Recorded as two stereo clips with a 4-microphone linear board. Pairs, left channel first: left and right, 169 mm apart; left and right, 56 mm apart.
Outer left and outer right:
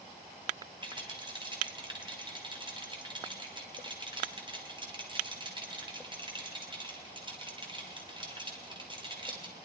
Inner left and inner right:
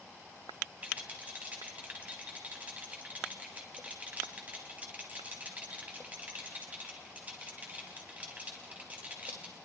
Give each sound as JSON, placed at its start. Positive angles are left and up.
{"t": 0.8, "sound": "a rattle", "side_deg": -30, "distance_m": 4.0}